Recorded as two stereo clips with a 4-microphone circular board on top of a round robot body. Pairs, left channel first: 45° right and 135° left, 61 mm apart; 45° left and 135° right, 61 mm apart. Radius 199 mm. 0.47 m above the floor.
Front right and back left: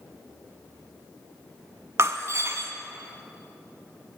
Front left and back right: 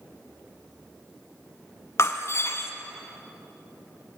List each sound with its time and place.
2.0 s breaking glass: 90° left, 1.6 m